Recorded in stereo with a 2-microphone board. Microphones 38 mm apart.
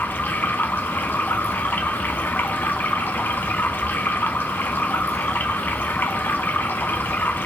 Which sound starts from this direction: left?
Running water, at 0.0 s.